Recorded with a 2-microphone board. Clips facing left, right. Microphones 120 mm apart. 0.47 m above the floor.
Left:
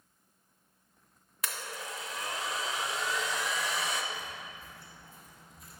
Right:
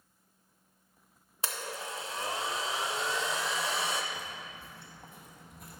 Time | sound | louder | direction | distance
1.4 | a blender | right 2 dB | 30° right (ahead or behind) | 0.6 m
4.1 | footsteps | even | 75° right (ahead or behind) | 1.9 m